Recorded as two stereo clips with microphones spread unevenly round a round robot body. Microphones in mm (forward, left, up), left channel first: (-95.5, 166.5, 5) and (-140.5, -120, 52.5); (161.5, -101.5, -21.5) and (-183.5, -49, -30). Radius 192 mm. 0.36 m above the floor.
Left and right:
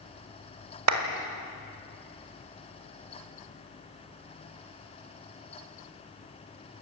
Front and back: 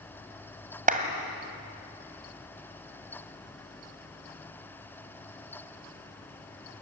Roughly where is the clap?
Behind right.